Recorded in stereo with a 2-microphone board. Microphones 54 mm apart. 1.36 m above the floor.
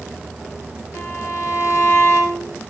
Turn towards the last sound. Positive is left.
turn(degrees=65)  # may be behind; listen again after turning